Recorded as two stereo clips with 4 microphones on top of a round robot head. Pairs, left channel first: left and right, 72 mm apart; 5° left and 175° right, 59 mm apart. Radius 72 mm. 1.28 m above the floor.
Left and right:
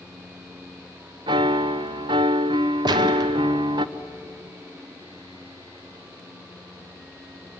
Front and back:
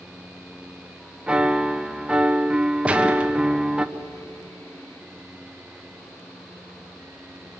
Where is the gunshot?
100° right, 1.5 m.